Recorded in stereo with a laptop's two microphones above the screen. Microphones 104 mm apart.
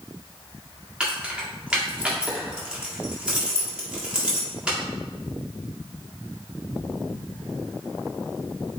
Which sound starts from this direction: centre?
Keys jangling, at 1.0 s.